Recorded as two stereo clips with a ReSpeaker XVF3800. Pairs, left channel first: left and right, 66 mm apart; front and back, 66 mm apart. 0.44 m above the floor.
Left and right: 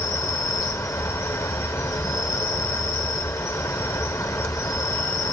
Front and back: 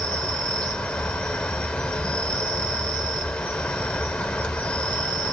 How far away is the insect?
About 0.8 m.